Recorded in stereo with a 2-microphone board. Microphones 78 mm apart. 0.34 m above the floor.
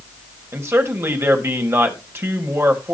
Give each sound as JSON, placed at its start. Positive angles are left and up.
{"t": 0.5, "sound": "a man speaking", "side_deg": -35, "distance_m": 2.0}